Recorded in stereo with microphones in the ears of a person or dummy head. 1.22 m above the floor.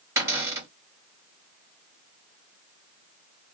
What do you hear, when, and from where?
0.2 s a cupboard door: 20° right (ahead or behind), 1.6 m